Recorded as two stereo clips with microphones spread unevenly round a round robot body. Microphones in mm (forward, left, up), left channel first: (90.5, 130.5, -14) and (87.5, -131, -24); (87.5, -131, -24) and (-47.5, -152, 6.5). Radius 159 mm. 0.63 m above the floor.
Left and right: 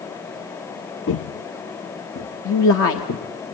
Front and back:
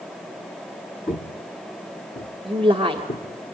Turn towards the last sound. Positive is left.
turn(degrees=120)